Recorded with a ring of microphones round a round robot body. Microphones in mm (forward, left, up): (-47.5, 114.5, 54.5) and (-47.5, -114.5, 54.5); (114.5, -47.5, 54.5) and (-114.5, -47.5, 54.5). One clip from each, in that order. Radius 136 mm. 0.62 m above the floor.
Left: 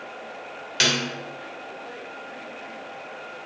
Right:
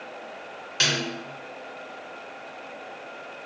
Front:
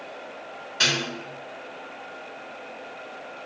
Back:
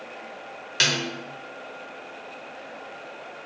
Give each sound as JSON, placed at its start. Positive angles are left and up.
{"t": 0.8, "sound": "a snare drum", "azimuth_deg": 165, "distance_m": 0.8}